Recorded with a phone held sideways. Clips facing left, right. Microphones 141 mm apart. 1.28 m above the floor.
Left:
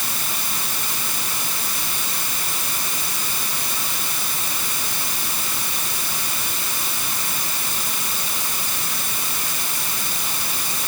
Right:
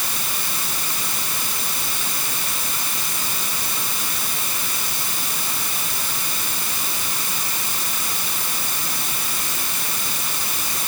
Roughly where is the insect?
No insect in this recording.